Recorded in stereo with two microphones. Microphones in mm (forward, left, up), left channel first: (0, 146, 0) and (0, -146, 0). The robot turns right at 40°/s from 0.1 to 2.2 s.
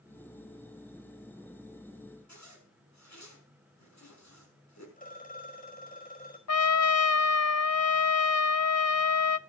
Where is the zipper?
70° left (ahead or behind), 6 m.